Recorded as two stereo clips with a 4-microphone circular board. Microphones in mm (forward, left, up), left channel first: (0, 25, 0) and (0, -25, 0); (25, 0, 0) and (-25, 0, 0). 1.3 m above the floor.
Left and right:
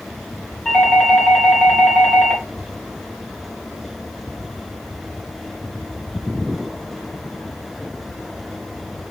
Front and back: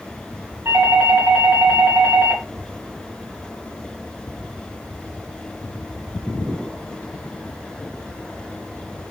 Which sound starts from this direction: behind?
A doorbell, at 0.7 s.